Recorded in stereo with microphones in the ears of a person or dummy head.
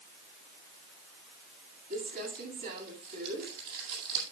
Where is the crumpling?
55° right (ahead or behind), 10 m.